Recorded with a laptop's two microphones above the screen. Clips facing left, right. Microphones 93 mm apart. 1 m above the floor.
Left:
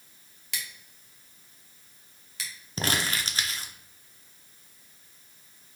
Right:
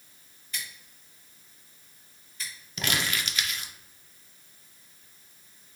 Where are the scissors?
80° left, 0.9 m.